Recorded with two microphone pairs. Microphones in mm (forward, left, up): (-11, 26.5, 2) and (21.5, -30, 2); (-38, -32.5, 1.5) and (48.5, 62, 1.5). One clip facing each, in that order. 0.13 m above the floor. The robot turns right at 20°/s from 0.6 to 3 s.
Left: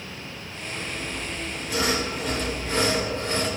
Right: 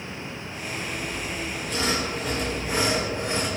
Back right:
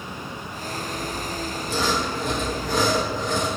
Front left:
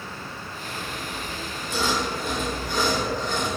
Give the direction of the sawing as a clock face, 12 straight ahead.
6 o'clock.